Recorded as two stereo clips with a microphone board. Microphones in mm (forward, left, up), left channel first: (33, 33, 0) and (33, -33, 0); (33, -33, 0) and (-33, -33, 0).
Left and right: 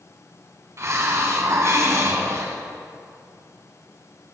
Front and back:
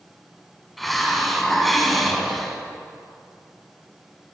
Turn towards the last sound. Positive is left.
turn(degrees=-90)